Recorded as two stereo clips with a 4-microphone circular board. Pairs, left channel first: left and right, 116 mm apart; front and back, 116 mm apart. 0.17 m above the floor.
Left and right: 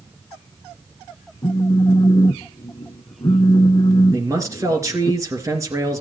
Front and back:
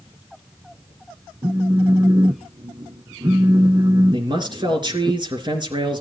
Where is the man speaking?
145° right, 3 m.